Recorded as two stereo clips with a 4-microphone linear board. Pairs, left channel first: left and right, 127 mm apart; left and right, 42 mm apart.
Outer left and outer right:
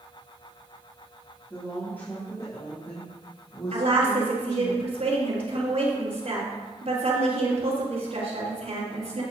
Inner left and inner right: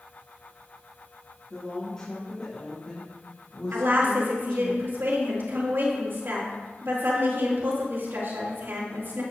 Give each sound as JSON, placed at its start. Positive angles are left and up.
{"t": 1.5, "sound": "a woman speaking", "side_deg": 15, "distance_m": 3.0}
{"t": 3.7, "sound": "a woman speaking", "side_deg": -70, "distance_m": 4.0}